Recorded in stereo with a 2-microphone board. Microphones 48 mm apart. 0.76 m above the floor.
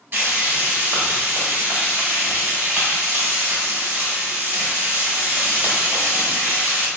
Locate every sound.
0.1 s frying: 40° right (ahead or behind), 1.7 m